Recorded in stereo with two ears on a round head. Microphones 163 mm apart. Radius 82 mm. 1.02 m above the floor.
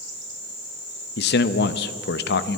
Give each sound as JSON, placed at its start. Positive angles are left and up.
{"t": 1.2, "sound": "a man speaking", "side_deg": 65, "distance_m": 0.8}